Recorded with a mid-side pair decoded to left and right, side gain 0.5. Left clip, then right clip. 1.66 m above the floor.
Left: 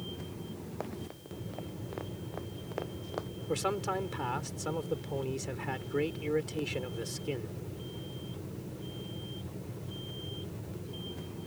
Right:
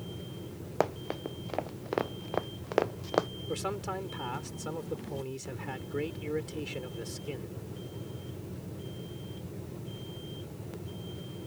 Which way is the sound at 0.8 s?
65° right.